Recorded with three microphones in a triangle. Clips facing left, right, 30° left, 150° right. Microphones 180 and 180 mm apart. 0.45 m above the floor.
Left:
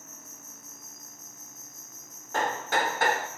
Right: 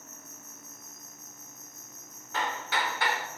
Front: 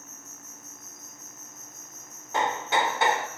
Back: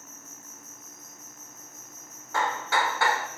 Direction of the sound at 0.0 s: 75° right.